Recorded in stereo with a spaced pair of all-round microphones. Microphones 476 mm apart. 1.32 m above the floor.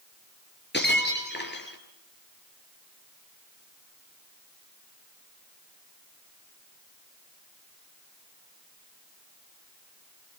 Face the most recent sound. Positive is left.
turn(degrees=20)  # may be behind; listen again after turning